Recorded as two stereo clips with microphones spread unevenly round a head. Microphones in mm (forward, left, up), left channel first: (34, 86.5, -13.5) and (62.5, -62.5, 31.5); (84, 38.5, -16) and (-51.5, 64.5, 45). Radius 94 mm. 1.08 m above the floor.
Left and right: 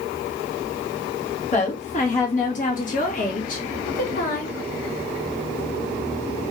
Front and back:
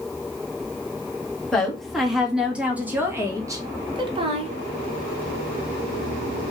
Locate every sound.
1.5 s a woman speaking: 70° left, 2.5 m; by 4.6 s 120° left, 1.4 m